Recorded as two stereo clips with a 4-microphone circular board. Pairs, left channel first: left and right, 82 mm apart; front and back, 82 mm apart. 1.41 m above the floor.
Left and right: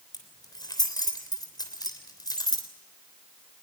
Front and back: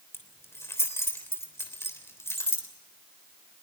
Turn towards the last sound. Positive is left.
turn(degrees=55)